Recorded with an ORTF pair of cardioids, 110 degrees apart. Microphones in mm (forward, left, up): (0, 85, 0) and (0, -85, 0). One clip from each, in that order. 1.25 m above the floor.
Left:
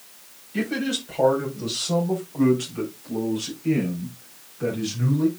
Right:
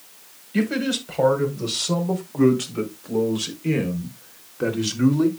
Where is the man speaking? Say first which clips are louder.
Right 2 dB; 35° right, 5 m; by 5.3 s 65° right, 3 m.